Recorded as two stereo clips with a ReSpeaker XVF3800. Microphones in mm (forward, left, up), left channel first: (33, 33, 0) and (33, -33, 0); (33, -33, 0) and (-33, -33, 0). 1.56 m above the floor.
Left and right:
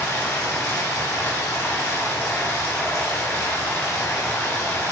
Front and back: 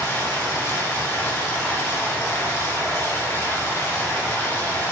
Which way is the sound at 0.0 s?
50° left.